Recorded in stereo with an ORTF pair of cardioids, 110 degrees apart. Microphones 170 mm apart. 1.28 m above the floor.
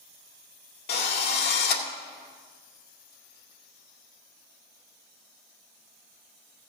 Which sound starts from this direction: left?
A drill, at 0.9 s.